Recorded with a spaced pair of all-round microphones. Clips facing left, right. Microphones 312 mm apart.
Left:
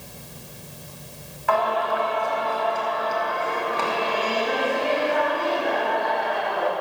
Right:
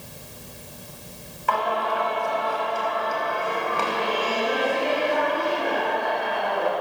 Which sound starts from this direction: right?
Singing, at 1.5 s.